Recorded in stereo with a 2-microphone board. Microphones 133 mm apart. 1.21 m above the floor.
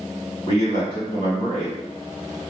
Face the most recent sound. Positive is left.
turn(degrees=35)  # may be behind; listen again after turning